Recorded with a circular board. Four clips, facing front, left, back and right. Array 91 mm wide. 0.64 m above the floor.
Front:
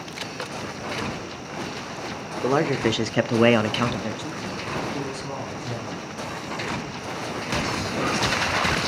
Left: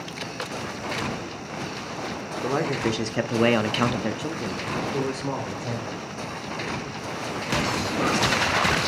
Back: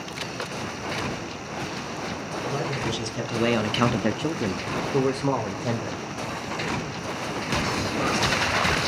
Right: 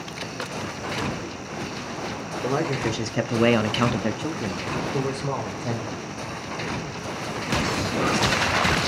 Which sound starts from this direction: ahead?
A man speaking, at 2.4 s.